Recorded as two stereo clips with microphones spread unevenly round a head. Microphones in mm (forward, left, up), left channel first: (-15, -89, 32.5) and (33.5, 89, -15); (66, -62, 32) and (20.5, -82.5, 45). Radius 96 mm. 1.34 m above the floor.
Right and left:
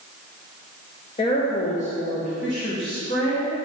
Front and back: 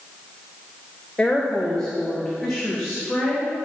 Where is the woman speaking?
45° right, 0.9 m; by 3.5 s 65° right, 2.5 m.